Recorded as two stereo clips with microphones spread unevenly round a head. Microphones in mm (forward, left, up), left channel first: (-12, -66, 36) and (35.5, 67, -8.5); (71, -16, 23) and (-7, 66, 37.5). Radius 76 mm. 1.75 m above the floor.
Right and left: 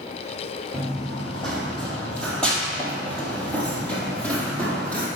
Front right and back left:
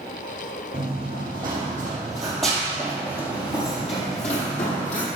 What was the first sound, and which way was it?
Running footsteps, 175° left.